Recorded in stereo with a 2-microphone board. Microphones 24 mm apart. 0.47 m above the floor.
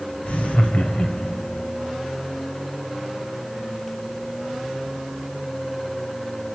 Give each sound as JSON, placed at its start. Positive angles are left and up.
{"t": 0.2, "sound": "laughter", "side_deg": 65, "distance_m": 2.0}